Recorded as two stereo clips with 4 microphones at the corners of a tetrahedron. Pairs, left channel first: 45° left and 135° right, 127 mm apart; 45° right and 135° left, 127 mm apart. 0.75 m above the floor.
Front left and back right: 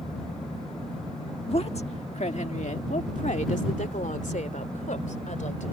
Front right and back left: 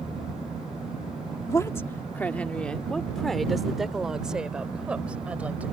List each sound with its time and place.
1.5 s a woman speaking: 15° left; by 5.7 s 55° left